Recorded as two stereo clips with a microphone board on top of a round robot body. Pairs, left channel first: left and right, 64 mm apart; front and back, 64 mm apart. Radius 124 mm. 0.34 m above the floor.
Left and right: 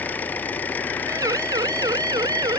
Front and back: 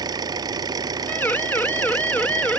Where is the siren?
60° right; by 2.6 s 70° right.